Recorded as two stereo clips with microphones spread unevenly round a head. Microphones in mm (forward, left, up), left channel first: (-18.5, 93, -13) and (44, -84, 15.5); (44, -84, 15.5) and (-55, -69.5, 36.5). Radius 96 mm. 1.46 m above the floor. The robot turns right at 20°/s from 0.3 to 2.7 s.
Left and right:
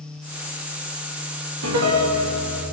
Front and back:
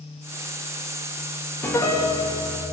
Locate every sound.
1.6 s a piano: 75° right, 2 m; by 2.6 s 55° right, 2 m